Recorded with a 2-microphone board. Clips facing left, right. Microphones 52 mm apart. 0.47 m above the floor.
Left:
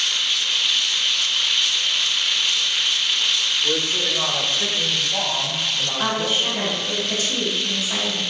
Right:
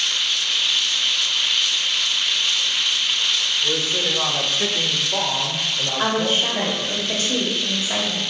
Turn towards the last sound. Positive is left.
turn(degrees=-55)  # may be behind; listen again after turning